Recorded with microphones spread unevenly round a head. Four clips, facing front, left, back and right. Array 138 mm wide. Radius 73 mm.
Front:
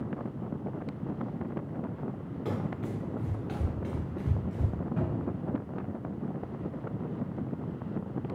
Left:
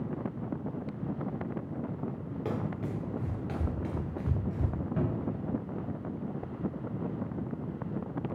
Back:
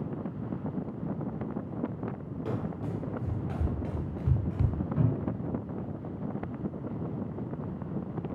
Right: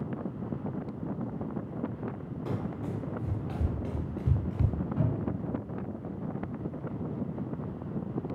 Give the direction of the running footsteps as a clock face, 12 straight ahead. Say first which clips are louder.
Left 1 dB, front 1 dB; 10 o'clock.